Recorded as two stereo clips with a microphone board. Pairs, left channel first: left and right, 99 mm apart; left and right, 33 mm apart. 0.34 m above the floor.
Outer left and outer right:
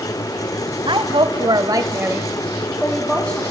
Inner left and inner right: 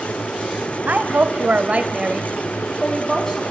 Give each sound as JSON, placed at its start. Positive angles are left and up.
{"t": 0.9, "sound": "a woman speaking", "side_deg": -55, "distance_m": 1.8}